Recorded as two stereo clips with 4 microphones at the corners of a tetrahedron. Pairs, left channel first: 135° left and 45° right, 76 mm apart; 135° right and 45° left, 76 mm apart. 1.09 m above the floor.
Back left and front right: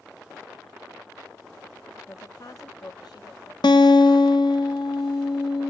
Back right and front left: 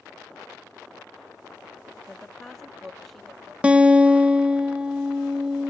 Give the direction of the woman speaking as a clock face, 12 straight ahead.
7 o'clock.